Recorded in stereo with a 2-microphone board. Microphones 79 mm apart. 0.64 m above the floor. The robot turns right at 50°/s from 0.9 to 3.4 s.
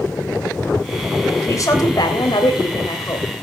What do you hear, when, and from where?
1.4 s a woman speaking: 40° left, 3.5 m; by 3.3 s 130° left, 3.5 m